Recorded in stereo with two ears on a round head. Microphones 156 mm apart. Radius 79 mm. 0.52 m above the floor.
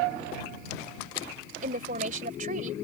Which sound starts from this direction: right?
A woman speaking, at 1.6 s.